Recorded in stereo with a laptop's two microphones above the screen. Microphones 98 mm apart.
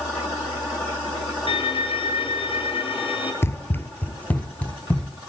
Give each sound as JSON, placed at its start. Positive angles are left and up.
{"t": 1.5, "sound": "a violin", "side_deg": 70, "distance_m": 5.0}
{"t": 3.4, "sound": "running footsteps", "side_deg": 25, "distance_m": 1.2}